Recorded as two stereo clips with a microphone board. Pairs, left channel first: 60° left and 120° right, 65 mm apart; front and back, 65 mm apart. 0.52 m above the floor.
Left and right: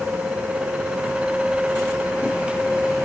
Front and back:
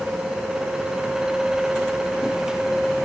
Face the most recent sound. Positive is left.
No sound to turn to.